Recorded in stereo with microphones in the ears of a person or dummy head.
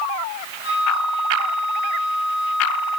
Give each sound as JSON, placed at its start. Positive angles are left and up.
{"t": 0.6, "sound": "a flute", "side_deg": 60, "distance_m": 6.0}